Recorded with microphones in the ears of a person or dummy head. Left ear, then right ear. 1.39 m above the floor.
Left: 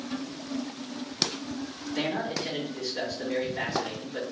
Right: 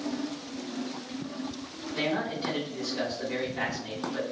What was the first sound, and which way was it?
A man speaking, 25° left (ahead or behind).